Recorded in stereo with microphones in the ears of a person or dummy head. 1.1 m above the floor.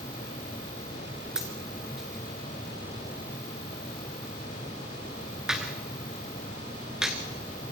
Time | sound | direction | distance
1.4 | a dropped coin | 5° right (ahead or behind) | 1.4 m